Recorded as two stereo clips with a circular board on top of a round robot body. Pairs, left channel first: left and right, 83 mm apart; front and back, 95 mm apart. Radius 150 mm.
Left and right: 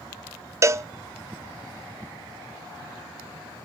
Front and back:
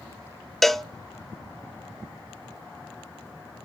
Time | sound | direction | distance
0.6 | a cowbell | 85° right | 0.8 m